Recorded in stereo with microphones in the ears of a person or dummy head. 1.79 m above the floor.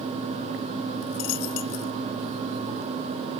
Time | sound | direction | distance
1.0 | a dropped coin | 45° left (ahead or behind) | ?